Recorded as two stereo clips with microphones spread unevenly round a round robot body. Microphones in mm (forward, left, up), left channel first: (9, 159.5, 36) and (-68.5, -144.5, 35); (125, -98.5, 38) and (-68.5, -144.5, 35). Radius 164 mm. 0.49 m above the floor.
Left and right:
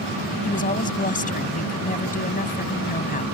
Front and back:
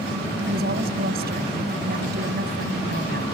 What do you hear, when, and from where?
0.4 s a woman speaking: 140° left